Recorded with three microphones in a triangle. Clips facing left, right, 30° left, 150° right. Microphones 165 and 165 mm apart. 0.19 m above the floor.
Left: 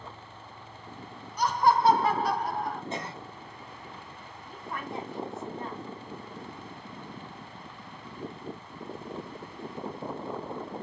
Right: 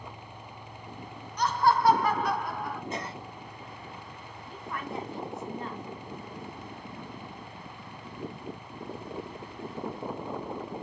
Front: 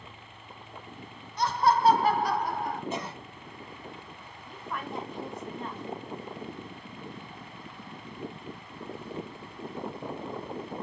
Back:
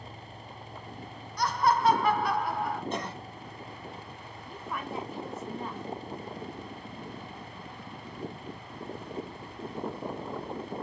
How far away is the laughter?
About 1.0 m.